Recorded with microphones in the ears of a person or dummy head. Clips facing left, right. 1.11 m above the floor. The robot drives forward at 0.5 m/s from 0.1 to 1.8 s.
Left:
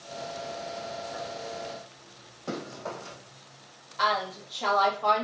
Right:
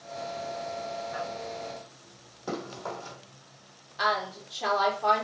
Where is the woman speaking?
5° right (ahead or behind), 0.9 m.